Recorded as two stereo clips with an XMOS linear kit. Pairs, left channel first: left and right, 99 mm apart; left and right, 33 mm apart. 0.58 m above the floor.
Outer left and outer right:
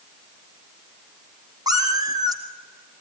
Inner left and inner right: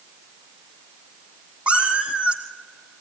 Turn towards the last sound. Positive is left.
turn(degrees=-40)  # may be behind; listen again after turning